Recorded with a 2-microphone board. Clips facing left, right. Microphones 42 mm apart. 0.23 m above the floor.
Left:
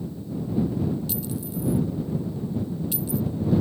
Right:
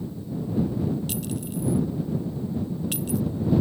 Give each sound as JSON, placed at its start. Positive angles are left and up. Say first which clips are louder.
{"t": 1.1, "sound": "a clink", "louder": "even", "side_deg": -60}